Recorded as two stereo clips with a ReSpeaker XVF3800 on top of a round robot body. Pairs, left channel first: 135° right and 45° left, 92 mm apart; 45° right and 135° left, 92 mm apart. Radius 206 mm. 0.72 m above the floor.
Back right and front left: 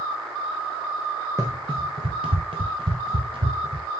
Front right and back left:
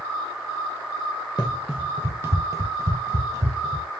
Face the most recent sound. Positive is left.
turn(degrees=80)